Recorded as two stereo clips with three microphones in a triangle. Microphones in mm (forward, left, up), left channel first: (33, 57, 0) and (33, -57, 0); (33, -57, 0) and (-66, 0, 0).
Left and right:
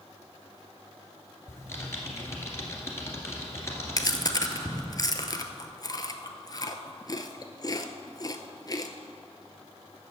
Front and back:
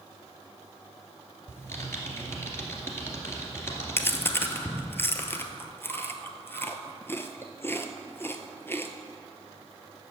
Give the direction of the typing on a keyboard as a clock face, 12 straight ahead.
11 o'clock.